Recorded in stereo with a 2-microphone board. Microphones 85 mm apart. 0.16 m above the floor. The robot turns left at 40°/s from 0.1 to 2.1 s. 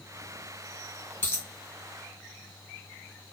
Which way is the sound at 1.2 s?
25° left (ahead or behind).